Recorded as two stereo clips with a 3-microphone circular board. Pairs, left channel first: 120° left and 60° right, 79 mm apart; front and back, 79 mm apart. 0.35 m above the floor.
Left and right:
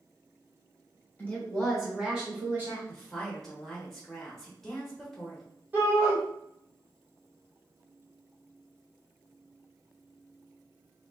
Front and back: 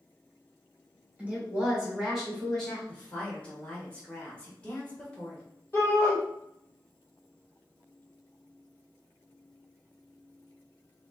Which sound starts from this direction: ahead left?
A woman speaking, at 2.9 s.